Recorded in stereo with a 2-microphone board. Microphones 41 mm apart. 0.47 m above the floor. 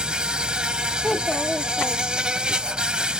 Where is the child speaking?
15° left (ahead or behind).